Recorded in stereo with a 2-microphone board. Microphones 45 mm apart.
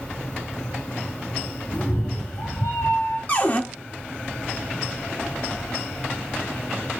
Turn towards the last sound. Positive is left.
turn(degrees=35)  # may be behind; listen again after turning